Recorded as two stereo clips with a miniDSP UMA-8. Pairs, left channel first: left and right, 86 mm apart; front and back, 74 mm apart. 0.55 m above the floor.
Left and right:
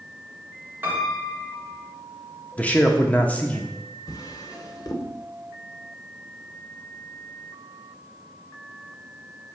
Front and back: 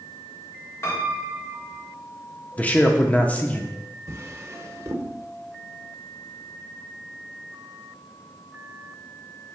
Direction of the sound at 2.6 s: 40° left.